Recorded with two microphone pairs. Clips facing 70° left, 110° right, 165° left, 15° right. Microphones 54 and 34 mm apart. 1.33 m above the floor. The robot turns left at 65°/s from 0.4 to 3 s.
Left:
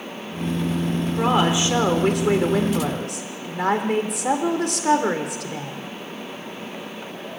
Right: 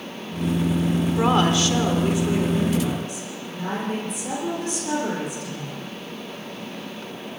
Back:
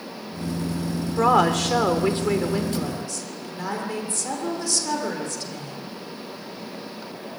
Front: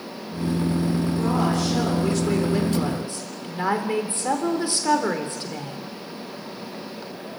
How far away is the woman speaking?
About 3.5 m.